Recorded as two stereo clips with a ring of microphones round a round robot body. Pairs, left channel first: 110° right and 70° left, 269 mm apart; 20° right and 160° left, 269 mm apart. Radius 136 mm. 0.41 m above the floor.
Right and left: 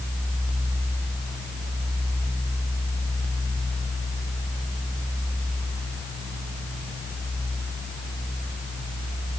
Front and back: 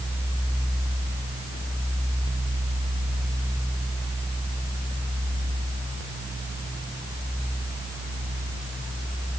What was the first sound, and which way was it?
Only background noise.